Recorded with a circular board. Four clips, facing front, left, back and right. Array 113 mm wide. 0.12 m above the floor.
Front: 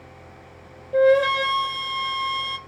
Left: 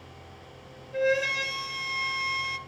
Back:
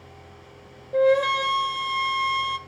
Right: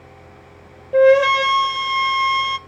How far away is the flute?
About 0.5 m.